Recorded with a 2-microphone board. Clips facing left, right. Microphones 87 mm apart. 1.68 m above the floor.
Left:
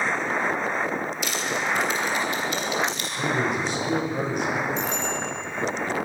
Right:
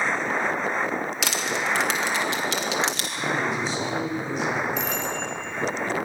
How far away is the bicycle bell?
About 6 m.